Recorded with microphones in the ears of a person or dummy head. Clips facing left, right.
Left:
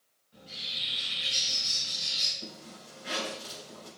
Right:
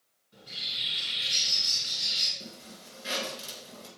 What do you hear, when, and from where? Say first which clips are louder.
0.3 s a bird: left 1 dB; 25° right (ahead or behind), 4.5 m
2.4 s a zipper: left 2 dB; 65° right (ahead or behind), 4 m